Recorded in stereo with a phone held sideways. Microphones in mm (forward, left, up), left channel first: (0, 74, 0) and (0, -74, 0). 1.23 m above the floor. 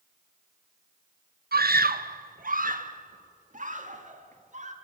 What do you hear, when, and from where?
1.5 s a scream: 75° right (ahead or behind), 0.8 m; by 4.7 s 50° right (ahead or behind), 2.5 m